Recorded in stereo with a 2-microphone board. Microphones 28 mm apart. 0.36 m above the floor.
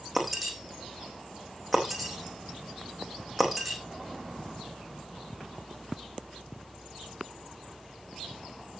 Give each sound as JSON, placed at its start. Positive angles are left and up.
{"t": 0.1, "sound": "breaking glass", "side_deg": 0, "distance_m": 3.5}